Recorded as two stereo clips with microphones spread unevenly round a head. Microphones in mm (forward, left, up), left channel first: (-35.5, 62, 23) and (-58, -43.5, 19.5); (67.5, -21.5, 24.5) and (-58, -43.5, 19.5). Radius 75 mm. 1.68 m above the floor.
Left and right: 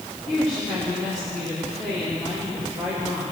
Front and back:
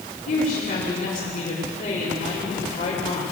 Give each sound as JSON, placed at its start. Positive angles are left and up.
{"t": 0.3, "sound": "a woman speaking", "azimuth_deg": -15, "distance_m": 5.5}